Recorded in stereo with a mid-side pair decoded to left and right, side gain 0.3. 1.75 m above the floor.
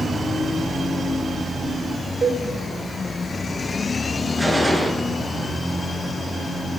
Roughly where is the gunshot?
Ahead.